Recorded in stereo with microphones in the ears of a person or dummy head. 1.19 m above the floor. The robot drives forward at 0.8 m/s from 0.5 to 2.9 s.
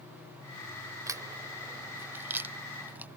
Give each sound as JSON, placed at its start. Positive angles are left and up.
{"t": 1.1, "sound": "a crack", "side_deg": -10}